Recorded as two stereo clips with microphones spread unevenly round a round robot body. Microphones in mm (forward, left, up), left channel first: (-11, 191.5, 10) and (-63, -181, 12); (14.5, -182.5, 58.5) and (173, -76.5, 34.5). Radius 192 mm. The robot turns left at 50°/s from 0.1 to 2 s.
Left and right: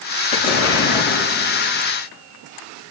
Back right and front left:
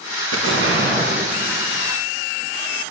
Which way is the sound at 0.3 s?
45° left.